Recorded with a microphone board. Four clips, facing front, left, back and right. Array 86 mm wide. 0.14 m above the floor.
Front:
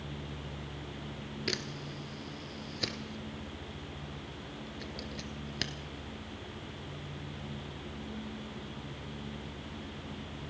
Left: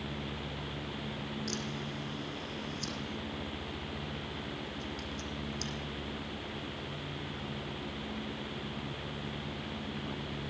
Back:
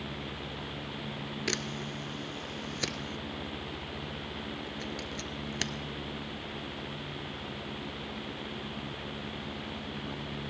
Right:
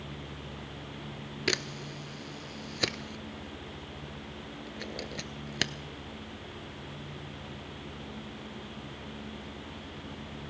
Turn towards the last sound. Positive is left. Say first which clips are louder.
# right 3 dB, back 3 dB
turn(degrees=-105)